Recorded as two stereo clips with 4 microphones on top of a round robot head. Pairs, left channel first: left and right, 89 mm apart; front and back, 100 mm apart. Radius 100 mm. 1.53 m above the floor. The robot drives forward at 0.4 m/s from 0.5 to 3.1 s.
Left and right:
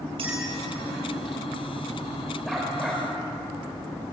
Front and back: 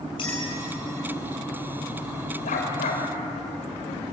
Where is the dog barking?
5° right, 3 m.